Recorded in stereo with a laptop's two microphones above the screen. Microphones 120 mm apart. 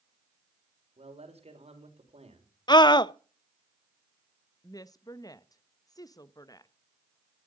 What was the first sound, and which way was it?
A man speaking, 65° right (ahead or behind).